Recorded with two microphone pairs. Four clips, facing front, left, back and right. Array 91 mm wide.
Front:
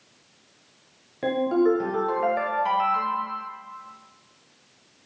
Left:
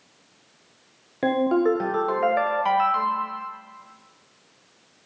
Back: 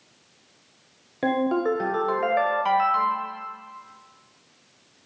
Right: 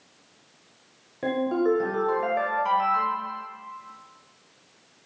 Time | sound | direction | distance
1.2 | a ringtone | 115° left | 0.5 m